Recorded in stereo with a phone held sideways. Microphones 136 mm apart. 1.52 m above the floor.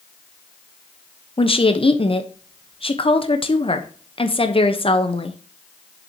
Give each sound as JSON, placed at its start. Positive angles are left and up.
{"t": 1.4, "sound": "a woman speaking", "side_deg": 45, "distance_m": 1.1}